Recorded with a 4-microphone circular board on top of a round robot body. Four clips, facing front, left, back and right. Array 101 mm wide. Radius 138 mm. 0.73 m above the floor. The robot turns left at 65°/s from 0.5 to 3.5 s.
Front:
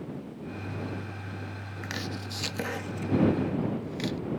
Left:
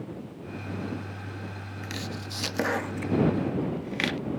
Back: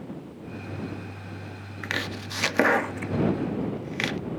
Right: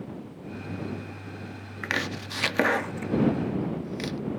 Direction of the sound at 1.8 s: 105° right.